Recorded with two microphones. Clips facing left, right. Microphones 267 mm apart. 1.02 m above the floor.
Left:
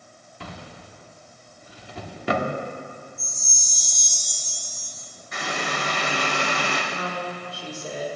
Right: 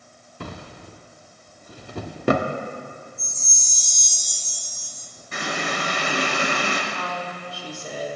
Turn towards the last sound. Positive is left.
turn(degrees=25)  # may be behind; listen again after turning